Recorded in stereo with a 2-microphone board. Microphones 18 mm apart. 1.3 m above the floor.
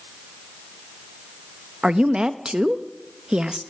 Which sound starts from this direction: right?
A woman speaking, at 1.8 s.